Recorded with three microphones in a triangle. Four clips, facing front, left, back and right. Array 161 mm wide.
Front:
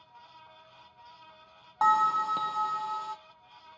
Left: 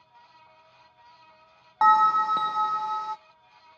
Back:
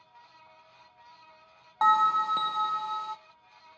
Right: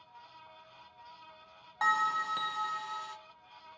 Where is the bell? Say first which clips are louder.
Left 11 dB, back 1 dB; 85° left, 0.7 m.